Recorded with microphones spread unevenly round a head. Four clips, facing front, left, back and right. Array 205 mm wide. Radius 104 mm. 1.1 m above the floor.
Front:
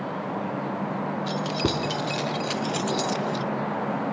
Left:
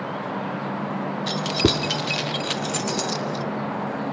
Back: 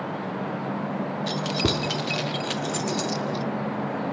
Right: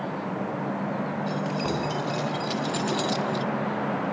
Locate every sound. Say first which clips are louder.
1.3 s keys jangling: left 8 dB, back 1 dB; 105° left, 2.5 m; by 3.5 s 10° left, 1.2 m